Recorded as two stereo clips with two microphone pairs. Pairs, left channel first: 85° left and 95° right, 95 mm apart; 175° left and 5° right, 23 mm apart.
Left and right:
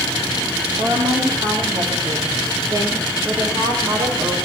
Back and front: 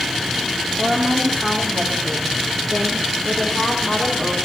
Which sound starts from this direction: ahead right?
A woman speaking, at 0.8 s.